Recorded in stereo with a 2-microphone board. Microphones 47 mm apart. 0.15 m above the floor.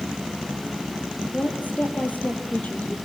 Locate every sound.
1.3 s a woman speaking: 35° left (ahead or behind), 4 m